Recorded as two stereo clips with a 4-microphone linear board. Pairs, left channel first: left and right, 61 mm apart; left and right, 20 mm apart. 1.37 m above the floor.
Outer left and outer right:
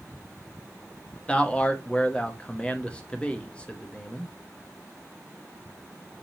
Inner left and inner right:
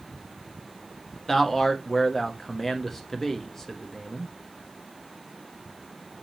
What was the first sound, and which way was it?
A man speaking, 20° left (ahead or behind).